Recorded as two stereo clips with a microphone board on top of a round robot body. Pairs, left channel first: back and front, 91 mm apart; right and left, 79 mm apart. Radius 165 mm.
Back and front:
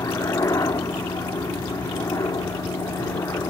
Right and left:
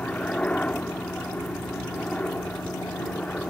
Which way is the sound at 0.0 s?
155° right.